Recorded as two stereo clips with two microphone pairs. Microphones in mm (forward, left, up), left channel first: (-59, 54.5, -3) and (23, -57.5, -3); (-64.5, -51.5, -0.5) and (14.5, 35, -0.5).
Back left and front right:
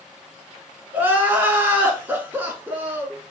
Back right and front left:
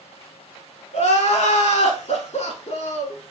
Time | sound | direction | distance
0.9 | crying | 130° right | 0.8 m